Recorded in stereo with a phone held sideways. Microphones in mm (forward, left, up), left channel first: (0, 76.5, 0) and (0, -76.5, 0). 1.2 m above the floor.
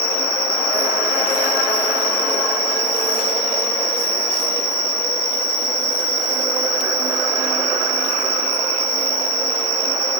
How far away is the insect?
About 1.4 m.